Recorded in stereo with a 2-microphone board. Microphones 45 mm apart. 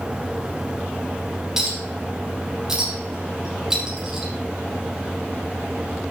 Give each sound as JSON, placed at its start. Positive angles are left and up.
{"t": 1.6, "sound": "a clink", "side_deg": -15, "distance_m": 4.0}